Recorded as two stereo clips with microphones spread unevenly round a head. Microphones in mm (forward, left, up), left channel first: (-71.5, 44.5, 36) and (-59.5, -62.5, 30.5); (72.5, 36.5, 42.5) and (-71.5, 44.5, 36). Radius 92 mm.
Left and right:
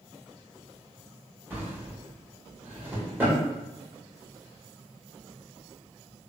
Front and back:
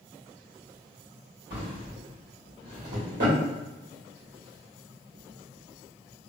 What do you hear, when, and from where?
1.5 s a drawer: 155° right, 1.7 m